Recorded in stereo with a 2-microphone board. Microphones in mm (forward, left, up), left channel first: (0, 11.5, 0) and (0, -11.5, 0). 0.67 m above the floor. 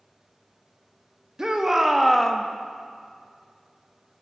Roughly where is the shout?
Right.